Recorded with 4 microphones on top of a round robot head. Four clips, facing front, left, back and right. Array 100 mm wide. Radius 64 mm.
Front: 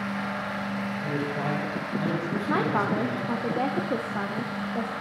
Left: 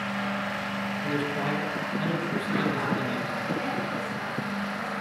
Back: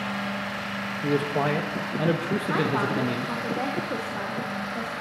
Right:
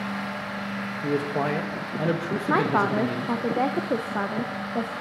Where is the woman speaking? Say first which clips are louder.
Right 7 dB, front 1 dB; 70° right, 0.6 m.